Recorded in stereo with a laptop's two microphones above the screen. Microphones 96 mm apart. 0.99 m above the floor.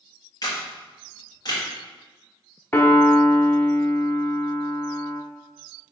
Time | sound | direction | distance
0.4 | a camera shutter | 45° left (ahead or behind) | 1.7 m
2.7 | a piano | 25° left (ahead or behind) | 0.9 m